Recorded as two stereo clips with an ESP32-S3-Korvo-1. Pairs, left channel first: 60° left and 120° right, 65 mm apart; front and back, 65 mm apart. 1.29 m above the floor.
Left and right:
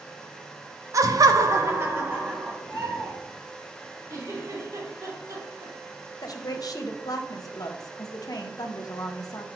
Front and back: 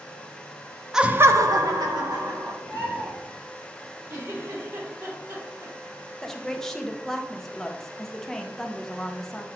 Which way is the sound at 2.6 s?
145° right.